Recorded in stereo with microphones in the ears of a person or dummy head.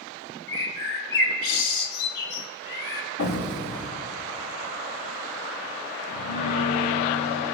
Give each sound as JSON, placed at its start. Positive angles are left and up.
{"t": 0.5, "sound": "a bird", "side_deg": 65, "distance_m": 2.0}
{"t": 3.2, "sound": "an explosion", "side_deg": 75, "distance_m": 2.5}
{"t": 6.1, "sound": "a piano", "side_deg": 55, "distance_m": 3.0}